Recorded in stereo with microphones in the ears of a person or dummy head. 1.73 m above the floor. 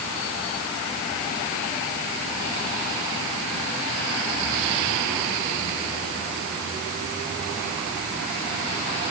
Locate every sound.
Only background noise.